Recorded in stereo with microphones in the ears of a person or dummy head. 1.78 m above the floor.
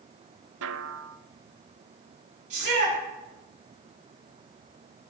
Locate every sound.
0.6 s a snare drum: 80° right, 0.7 m
2.5 s a shout: 55° right (ahead or behind), 6.5 m